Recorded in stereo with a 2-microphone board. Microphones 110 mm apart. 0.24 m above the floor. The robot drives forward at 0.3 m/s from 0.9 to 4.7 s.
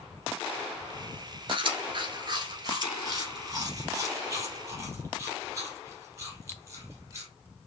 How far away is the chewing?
About 1.2 m.